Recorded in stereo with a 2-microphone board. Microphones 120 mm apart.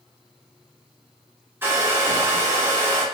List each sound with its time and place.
1.6 s a hair dryer: 20° right (ahead or behind), 1.1 m